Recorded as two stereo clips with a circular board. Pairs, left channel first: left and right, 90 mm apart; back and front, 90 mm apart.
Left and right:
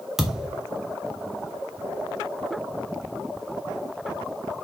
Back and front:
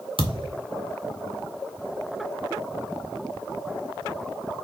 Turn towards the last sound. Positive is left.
turn(degrees=-5)